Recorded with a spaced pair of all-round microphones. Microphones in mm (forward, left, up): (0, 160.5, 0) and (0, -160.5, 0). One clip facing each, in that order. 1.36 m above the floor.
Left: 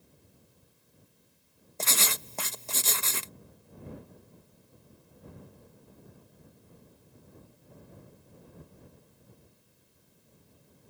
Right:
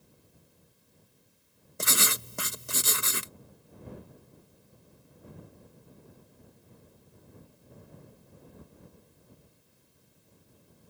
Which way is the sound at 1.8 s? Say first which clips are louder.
Right 2 dB; 15° right (ahead or behind).